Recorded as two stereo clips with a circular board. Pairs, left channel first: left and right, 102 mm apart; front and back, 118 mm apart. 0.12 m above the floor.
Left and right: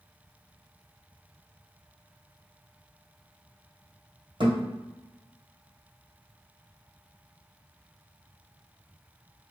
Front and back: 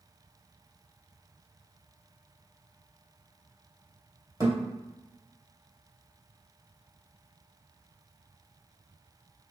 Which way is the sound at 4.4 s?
120° right.